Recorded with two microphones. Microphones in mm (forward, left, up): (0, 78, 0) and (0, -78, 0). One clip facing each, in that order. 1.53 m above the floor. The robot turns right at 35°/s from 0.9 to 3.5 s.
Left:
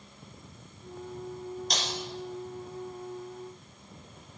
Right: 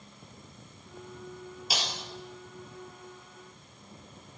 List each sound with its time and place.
1.7 s breaking glass: 5° right (ahead or behind), 2.5 m; by 1.9 s 10° right (ahead or behind), 2.5 m